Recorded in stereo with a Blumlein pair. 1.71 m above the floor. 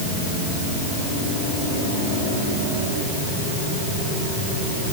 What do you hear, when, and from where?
Only background noise.